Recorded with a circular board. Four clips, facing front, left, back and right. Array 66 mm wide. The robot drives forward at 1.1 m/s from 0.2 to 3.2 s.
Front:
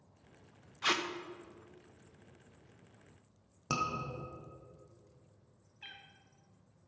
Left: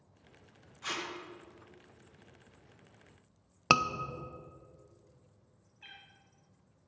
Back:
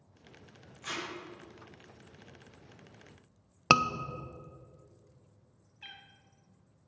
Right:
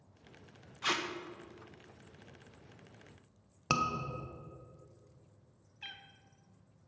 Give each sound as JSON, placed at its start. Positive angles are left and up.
{"t": 0.8, "sound": "tape being pulled", "azimuth_deg": -25, "distance_m": 1.0}
{"t": 3.7, "sound": "a scream", "azimuth_deg": 150, "distance_m": 0.8}
{"t": 5.8, "sound": "a cat meowing", "azimuth_deg": -105, "distance_m": 0.9}